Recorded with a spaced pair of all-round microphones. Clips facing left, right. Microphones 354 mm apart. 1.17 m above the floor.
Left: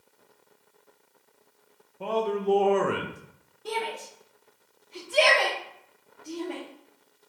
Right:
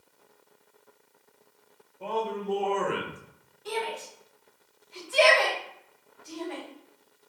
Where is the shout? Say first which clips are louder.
Even; 55° left (ahead or behind), 1.5 m.